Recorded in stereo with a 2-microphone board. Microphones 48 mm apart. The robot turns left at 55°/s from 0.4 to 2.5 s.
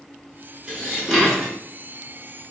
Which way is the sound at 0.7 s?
135° right.